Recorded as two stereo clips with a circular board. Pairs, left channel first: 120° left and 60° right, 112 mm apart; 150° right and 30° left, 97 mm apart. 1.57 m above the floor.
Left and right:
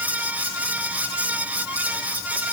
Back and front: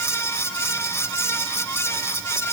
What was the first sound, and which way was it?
Only background noise.